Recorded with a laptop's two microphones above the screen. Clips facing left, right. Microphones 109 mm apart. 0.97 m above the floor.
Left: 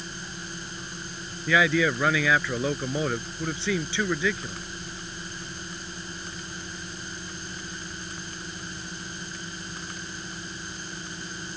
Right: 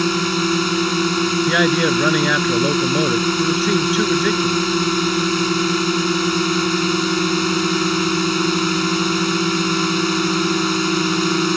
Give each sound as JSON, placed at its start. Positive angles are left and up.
{"t": 0.0, "sound": "a drone", "side_deg": -75}
{"t": 1.5, "sound": "a man speaking", "side_deg": -15}